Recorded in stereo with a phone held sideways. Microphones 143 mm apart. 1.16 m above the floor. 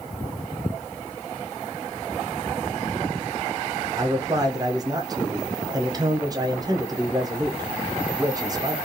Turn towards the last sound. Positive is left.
turn(degrees=-25)  # may be behind; listen again after turning